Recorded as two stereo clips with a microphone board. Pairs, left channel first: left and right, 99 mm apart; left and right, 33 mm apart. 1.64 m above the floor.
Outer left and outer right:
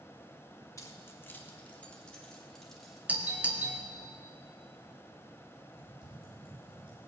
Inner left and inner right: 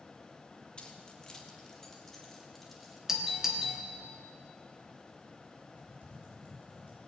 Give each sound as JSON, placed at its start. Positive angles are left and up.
{"t": 0.8, "sound": "keys jangling", "side_deg": 30, "distance_m": 1.7}
{"t": 3.1, "sound": "a doorbell", "side_deg": -15, "distance_m": 1.5}
{"t": 5.8, "sound": "typing on a keyboard", "side_deg": -55, "distance_m": 5.0}